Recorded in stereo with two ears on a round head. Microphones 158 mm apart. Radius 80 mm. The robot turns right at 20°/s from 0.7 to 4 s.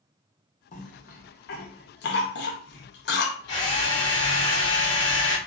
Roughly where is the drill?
Left.